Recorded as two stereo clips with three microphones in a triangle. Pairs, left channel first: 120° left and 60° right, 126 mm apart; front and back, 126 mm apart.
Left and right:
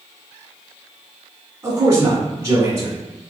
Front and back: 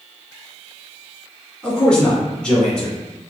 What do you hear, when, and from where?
1.6 s a man speaking: 70° right, 1.0 m